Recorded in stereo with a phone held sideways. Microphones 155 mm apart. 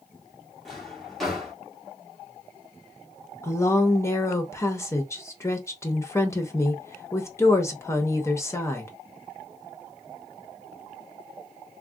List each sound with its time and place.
0.7 s a drawer: centre (ahead or behind), 1.3 m
3.4 s a woman speaking: 20° left (ahead or behind), 0.7 m